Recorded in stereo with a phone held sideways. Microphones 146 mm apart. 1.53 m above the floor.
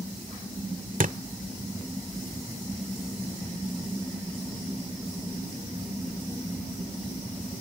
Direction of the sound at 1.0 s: 70° right (ahead or behind).